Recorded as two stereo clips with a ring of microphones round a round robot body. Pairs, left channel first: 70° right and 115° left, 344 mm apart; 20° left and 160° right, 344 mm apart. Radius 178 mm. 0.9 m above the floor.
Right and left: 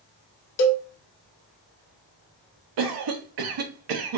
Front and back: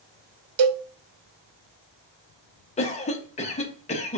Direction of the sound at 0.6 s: 125° right.